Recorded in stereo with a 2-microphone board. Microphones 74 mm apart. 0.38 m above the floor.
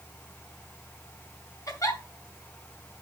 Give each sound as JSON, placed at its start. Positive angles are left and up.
{"t": 1.7, "sound": "a giggle", "side_deg": 55, "distance_m": 2.0}